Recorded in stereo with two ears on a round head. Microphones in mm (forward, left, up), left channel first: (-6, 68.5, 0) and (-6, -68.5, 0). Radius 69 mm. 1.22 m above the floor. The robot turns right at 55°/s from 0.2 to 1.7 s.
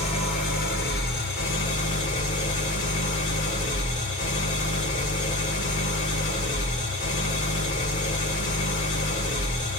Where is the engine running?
40° left, 2 m; by 9.8 s 120° left, 2 m.